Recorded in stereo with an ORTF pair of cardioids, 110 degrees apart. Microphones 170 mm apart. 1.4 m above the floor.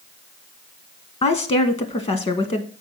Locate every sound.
1.2 s a woman speaking: 35° left, 1.4 m